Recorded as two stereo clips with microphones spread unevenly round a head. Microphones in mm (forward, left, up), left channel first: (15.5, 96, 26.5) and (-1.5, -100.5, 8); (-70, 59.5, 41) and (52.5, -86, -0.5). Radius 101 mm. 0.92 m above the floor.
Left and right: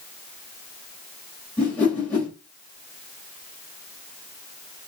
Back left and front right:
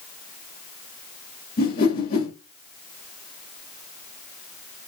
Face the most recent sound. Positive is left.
turn(degrees=165)